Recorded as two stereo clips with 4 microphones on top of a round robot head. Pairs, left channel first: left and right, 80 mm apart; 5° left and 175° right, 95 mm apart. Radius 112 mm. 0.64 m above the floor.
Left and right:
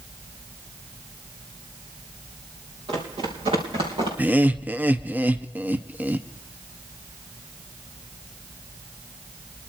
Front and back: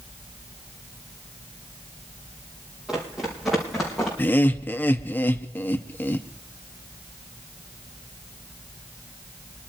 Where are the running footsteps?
90° right, 4 m; by 4.1 s 80° right, 3.5 m.